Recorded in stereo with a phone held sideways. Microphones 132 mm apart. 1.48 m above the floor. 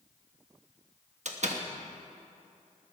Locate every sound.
1.2 s a door slam: 60° right (ahead or behind), 1.2 m